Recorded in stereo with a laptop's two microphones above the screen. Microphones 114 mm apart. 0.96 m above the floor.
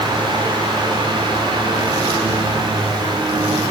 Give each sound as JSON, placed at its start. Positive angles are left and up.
{"t": 0.0, "sound": "a fan", "side_deg": -45, "distance_m": 5.0}